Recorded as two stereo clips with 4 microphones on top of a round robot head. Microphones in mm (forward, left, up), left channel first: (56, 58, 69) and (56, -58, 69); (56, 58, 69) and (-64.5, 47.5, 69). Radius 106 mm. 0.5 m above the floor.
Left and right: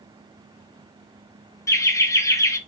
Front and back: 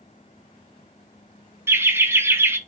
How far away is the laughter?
About 0.7 m.